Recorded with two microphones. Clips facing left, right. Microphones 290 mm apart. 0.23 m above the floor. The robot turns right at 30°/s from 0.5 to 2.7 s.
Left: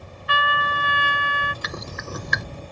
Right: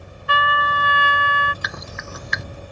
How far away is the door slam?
I don't hear a door slam.